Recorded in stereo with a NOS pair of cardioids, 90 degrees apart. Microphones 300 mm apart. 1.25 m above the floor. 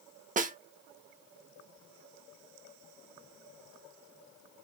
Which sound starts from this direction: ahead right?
A snare drum, at 0.4 s.